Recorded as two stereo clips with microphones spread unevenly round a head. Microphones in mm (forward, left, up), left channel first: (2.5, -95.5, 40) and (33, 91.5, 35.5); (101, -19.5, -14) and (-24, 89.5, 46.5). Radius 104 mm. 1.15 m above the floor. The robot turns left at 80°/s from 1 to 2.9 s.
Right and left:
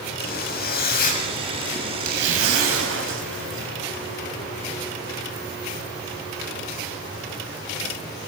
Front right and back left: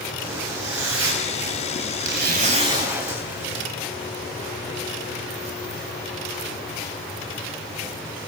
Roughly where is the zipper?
Behind right.